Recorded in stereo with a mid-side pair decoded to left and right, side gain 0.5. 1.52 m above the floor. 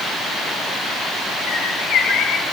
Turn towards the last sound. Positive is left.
turn(degrees=65)